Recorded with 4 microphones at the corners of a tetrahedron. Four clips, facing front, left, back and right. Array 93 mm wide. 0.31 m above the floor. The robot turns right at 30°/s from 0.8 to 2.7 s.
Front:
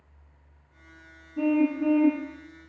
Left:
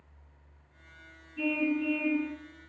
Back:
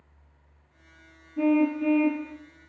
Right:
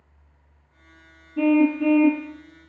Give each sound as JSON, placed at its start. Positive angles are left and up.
{"t": 1.4, "sound": "a car horn", "azimuth_deg": -95, "distance_m": 4.5}